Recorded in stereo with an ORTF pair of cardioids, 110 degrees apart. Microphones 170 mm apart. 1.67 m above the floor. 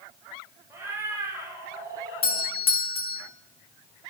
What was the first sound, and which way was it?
A cat meowing, 15° right.